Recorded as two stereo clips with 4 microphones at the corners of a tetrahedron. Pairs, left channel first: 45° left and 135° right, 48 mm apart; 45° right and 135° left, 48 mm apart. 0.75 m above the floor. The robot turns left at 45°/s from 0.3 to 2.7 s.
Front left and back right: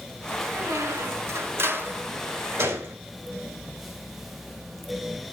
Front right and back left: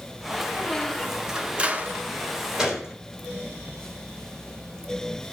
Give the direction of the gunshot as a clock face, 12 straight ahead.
5 o'clock.